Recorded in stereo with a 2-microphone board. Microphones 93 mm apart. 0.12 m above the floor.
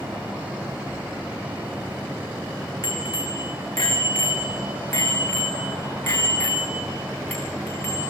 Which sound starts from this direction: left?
A bicycle bell, at 2.8 s.